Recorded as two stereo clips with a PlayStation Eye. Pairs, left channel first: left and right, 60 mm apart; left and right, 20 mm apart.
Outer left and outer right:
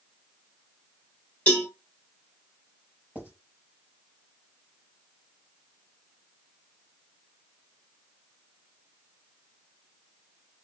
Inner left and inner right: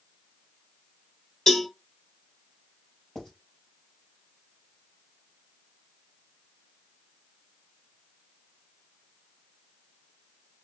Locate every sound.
1.5 s a cowbell: 25° left (ahead or behind), 1.1 m
3.1 s writing: 35° left (ahead or behind), 2 m